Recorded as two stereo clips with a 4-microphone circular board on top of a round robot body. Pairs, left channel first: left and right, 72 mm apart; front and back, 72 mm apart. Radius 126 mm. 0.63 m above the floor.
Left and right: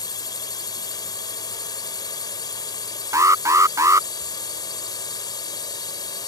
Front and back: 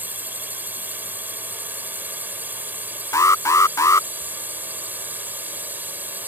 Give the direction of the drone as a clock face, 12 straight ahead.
8 o'clock.